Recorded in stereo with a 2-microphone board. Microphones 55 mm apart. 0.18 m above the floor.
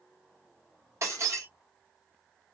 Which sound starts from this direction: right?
Breaking glass, at 1.0 s.